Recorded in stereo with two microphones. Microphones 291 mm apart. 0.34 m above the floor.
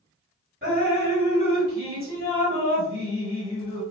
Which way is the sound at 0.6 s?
35° right (ahead or behind).